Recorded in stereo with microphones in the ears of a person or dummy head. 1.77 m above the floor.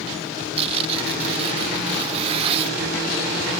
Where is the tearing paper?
35° right (ahead or behind).